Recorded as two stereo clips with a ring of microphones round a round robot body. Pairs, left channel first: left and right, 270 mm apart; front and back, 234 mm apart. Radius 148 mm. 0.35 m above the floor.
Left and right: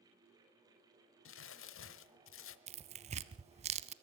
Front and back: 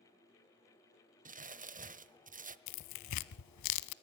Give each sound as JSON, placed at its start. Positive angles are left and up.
{"t": 1.2, "sound": "crumpling", "azimuth_deg": 125, "distance_m": 1.0}
{"t": 2.7, "sound": "tearing paper", "azimuth_deg": -20, "distance_m": 0.6}